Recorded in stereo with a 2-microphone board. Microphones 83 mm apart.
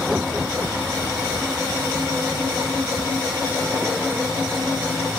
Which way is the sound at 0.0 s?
10° right (ahead or behind).